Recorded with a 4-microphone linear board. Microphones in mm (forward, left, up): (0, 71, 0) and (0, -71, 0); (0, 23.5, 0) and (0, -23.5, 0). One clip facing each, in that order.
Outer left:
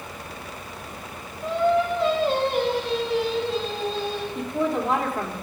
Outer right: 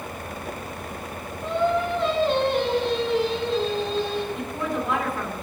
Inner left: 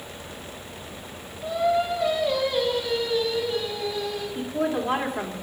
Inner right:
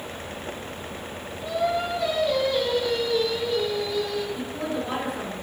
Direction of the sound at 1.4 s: 5° left (ahead or behind).